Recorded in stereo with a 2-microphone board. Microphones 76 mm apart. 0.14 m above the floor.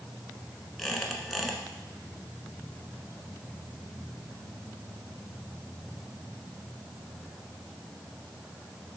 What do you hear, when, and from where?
0.8 s a squeak: centre (ahead or behind), 0.8 m